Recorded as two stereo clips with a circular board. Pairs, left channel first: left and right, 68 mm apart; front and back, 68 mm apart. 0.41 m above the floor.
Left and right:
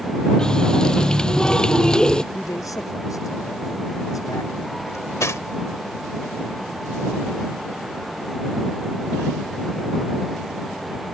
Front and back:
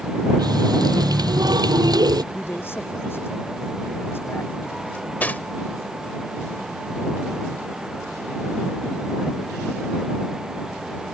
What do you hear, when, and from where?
0.4 s a running tap: 170° left
2.3 s a man speaking: 55° left
4.9 s cutlery clinking: 60° left